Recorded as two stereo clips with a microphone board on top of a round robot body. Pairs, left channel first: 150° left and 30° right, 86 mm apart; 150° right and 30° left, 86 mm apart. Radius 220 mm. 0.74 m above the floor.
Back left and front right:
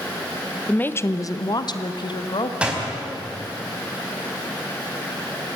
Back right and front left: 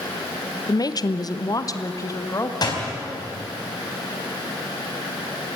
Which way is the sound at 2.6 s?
110° right.